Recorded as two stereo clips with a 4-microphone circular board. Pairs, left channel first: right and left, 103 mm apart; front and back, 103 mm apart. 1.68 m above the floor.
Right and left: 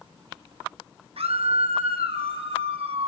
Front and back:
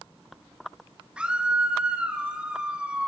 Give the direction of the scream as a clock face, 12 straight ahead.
9 o'clock.